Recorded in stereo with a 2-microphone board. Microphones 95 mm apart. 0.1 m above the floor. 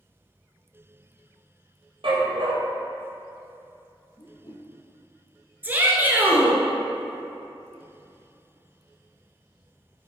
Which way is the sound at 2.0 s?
65° right (ahead or behind).